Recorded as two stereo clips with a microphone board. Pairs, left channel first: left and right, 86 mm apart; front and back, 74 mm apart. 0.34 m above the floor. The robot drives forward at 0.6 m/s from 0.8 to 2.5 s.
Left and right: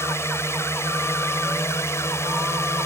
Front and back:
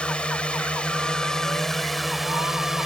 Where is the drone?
65° left; by 2.9 s 100° left.